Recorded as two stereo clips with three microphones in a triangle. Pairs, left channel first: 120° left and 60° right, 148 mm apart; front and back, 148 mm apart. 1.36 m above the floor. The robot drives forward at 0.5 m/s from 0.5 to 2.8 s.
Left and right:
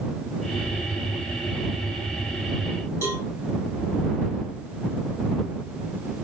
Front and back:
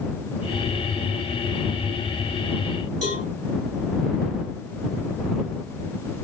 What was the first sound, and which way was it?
A cowbell, 170° right.